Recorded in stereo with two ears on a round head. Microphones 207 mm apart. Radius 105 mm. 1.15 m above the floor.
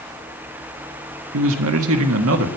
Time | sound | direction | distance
1.3 | a man speaking | 65° right (ahead or behind) | 1.3 m